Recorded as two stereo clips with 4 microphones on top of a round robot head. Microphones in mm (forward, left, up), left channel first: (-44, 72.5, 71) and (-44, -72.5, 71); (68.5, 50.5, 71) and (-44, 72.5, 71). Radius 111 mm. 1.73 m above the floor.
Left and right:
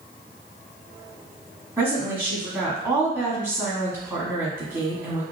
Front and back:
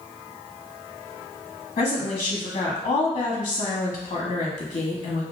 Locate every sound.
1.8 s a woman speaking: 15° right, 1.2 m